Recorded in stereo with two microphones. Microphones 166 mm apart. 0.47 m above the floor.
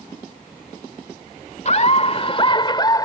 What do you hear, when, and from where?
1.6 s laughter: 45° left (ahead or behind); by 3.1 s 25° left (ahead or behind)